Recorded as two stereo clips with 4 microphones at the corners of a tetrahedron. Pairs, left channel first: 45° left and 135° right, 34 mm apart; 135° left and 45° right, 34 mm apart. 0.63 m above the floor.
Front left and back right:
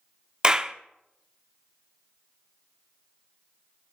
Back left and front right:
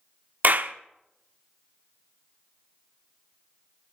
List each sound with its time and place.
0.4 s a clap: 70° right, 0.7 m